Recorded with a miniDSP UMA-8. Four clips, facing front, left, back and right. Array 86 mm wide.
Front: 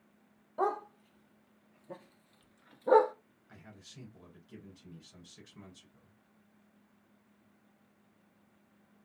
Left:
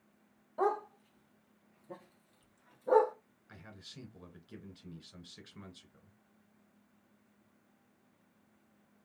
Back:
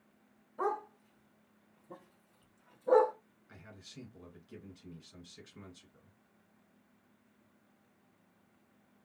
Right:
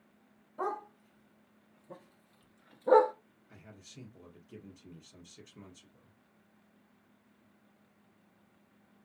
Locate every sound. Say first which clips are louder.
0.6 s a dog barking: left 4 dB, front 2 dB; 30° left, 1.6 m; by 3.1 s 55° right, 0.7 m
3.5 s a man speaking: left 1 dB, back 1 dB; 105° left, 2 m